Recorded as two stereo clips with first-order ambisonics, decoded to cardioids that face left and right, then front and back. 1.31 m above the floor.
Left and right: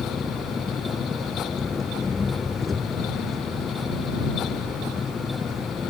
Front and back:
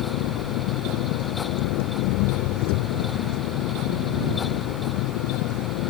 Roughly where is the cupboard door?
No cupboard door in this recording.